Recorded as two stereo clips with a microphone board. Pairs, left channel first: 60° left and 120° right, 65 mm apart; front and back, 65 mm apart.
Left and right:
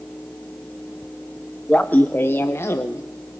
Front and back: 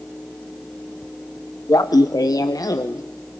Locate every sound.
1.7 s laughter: 10° right, 0.8 m; by 3.0 s 20° left, 1.3 m